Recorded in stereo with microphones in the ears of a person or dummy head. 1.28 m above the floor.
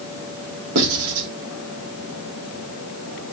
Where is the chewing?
No chewing in this recording.